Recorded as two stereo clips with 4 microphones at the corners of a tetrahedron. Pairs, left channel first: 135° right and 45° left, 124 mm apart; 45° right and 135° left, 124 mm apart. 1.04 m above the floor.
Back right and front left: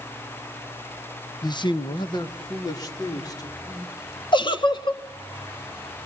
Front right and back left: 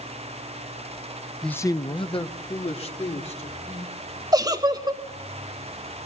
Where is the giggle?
175° right, 1.2 m.